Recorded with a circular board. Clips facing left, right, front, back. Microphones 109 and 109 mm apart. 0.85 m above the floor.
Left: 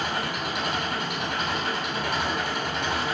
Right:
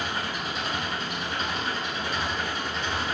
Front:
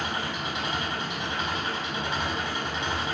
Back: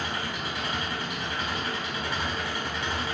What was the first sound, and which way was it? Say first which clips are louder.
An engine running: left 2 dB, front 1 dB; 65° left.